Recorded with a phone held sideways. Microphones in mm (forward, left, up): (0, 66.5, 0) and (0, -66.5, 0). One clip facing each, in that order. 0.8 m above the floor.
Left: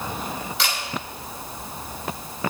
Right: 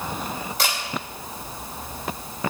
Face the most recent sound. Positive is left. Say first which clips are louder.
# right 2 dB
turn(degrees=-50)  # may be behind; listen again after turning